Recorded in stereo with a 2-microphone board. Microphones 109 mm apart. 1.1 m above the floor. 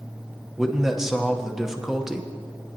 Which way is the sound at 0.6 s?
5° right (ahead or behind).